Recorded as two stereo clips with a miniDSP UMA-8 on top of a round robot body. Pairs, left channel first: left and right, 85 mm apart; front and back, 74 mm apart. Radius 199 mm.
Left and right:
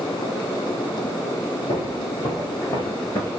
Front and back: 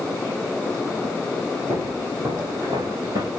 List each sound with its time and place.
1.7 s footsteps: 100° left, 1.2 m; by 3.3 s 155° left, 1.1 m